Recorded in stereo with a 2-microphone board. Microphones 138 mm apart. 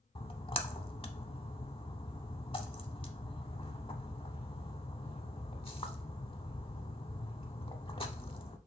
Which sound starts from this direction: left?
A splash, at 0.1 s.